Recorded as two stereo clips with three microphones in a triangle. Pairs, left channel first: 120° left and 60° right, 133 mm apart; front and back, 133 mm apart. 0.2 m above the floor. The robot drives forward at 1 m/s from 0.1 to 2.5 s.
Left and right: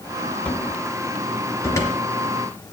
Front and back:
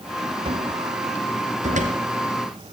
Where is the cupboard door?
170° right, 1.5 m; by 1.9 s 175° right, 2.5 m.